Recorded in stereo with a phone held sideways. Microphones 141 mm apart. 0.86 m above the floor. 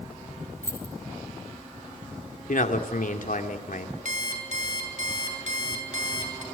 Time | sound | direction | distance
0.6 | keys jangling | 15° left (ahead or behind) | 5 m
2.5 | a man speaking | 70° left (ahead or behind) | 2.5 m
4.0 | an alarm clock | 60° right (ahead or behind) | 4.5 m